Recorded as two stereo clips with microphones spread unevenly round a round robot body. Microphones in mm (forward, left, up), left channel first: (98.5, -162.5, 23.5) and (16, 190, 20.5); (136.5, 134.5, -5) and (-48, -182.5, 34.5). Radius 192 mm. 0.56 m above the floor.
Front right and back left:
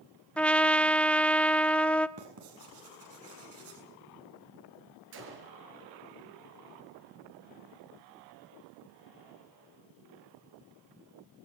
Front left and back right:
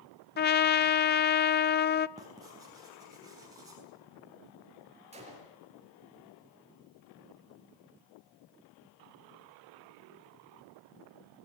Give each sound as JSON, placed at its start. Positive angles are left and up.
{"t": 0.4, "sound": "a trumpet", "azimuth_deg": 10, "distance_m": 0.8}
{"t": 2.2, "sound": "writing", "azimuth_deg": 160, "distance_m": 6.5}
{"t": 5.1, "sound": "a gunshot", "azimuth_deg": 165, "distance_m": 5.0}